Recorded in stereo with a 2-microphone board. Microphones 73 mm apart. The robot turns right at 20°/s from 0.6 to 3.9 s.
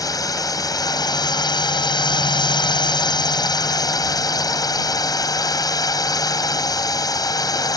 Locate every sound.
0.0 s a drone: 55° left; by 7.8 s 120° left